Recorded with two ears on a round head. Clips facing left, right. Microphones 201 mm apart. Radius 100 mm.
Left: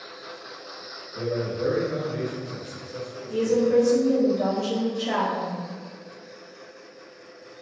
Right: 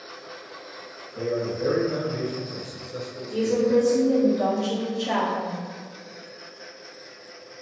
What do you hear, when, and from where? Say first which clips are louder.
1.1 s a man speaking: right 1 dB; 15° left (ahead or behind), 1.4 m; by 3.8 s 45° right (ahead or behind), 0.9 m
3.3 s a woman speaking: left 1 dB; centre (ahead or behind), 0.8 m